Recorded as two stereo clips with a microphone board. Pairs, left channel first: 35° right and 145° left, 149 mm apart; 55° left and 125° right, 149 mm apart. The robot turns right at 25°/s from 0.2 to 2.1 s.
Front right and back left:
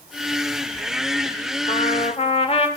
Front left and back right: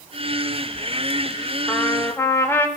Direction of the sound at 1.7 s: 25° right.